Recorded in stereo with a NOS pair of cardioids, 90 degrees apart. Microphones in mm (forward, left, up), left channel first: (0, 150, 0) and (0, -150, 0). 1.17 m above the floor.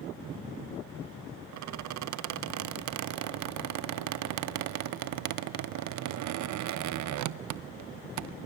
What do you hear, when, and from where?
1.5 s a squeak: 65° right, 0.7 m